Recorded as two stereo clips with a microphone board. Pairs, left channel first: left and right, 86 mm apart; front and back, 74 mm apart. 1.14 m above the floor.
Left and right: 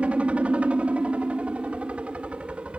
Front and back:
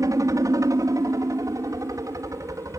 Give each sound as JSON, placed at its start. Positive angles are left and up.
{"t": 0.0, "sound": "a helicopter", "azimuth_deg": -160}